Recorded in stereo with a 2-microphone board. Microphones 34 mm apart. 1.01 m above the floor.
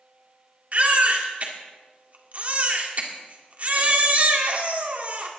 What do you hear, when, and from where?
0.7 s a baby crying: 45° right (ahead or behind), 2.0 m